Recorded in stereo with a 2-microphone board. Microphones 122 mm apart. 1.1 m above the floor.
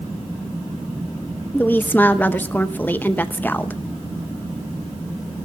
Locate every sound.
1.5 s a woman speaking: 15° left (ahead or behind), 0.7 m